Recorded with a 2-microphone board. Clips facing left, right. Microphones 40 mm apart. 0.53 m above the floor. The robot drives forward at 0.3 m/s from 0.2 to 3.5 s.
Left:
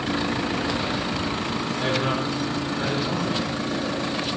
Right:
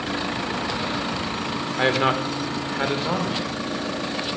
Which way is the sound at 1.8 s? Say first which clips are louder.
Right 5 dB; 50° right (ahead or behind).